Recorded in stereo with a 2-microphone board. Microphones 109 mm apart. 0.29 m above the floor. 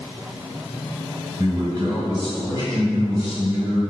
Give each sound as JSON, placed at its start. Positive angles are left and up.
{"t": 1.4, "sound": "a man speaking", "side_deg": -25, "distance_m": 1.6}